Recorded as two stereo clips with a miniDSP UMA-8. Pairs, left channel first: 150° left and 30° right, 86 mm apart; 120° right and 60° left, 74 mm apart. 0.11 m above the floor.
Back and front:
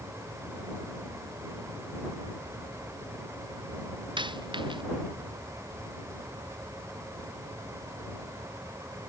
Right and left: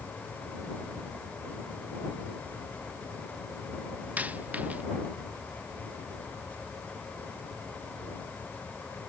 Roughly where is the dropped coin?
Ahead.